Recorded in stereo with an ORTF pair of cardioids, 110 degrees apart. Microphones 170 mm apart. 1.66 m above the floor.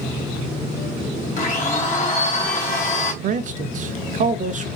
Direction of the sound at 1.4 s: 50° left.